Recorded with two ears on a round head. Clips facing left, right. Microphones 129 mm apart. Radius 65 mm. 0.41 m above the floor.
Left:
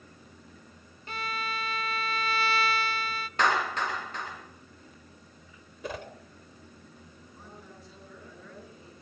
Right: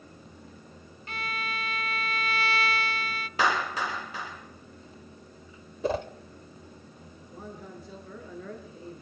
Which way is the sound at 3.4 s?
5° right (ahead or behind).